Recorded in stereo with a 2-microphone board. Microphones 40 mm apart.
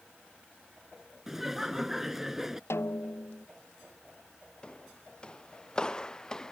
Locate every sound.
1.3 s laughter: 10° right (ahead or behind)
2.7 s a snare drum: 85° left
4.6 s footsteps: 25° left (ahead or behind); by 6.5 s 20° left (ahead or behind)